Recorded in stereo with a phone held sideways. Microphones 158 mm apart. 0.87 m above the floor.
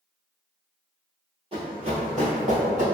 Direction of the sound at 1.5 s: 35° right (ahead or behind).